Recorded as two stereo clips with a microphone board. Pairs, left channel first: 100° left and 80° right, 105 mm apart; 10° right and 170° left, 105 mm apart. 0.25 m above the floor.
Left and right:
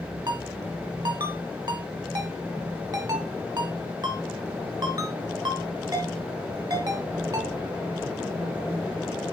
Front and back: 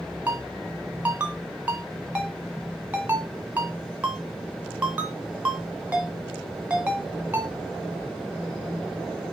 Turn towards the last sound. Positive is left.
turn(degrees=-115)